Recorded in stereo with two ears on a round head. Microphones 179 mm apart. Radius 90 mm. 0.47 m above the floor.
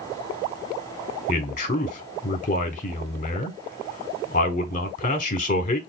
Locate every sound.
1.3 s a man speaking: 40° left (ahead or behind), 1.2 m